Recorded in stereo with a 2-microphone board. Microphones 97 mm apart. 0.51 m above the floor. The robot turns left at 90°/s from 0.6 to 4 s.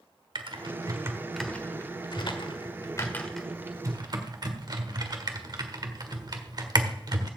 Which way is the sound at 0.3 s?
55° right (ahead or behind).